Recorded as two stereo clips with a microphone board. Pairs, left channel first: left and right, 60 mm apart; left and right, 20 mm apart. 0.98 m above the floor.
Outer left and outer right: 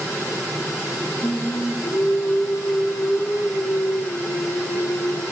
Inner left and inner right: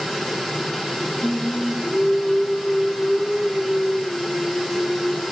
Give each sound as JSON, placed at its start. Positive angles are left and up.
{"t": 1.2, "sound": "singing", "side_deg": 60, "distance_m": 3.0}